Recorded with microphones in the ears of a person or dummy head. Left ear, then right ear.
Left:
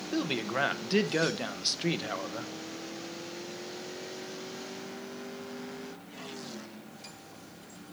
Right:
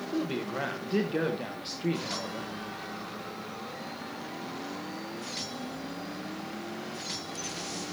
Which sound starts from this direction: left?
A man speaking, at 0.1 s.